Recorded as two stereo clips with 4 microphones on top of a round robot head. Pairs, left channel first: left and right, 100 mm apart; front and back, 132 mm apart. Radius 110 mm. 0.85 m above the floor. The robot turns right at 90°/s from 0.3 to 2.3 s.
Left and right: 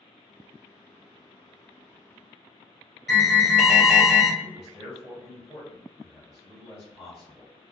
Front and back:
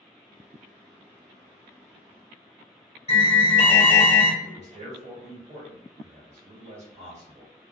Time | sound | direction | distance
3.1 | an alarm | 5° left | 1.2 m
4.4 | a man speaking | 175° right | 1.6 m